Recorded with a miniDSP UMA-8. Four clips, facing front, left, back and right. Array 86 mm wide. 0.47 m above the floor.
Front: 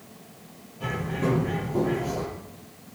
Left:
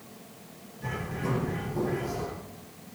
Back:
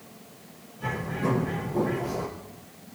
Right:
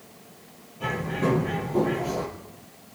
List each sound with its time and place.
0.8 s a bird: 65° right, 5 m